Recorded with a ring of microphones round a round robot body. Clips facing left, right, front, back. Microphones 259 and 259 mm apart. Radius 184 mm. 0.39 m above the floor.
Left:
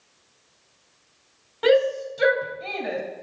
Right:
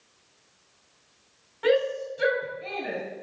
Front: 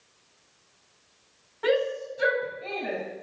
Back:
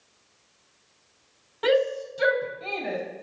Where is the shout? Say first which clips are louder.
Left 4 dB, back 2 dB; 130° left, 2 m.